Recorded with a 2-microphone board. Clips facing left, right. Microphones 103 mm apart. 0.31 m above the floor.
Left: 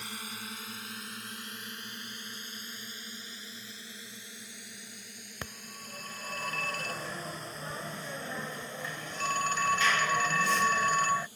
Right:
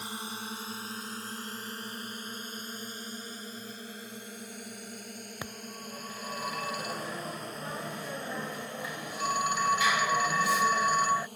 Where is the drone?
25° right (ahead or behind); by 11.4 s 60° right (ahead or behind).